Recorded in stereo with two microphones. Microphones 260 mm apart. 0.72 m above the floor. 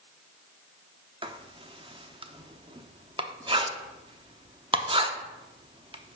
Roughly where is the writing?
Centre.